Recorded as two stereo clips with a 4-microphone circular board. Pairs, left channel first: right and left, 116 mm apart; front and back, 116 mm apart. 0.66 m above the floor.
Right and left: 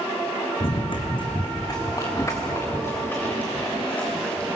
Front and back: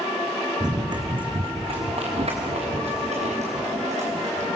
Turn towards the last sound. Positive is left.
turn(degrees=-170)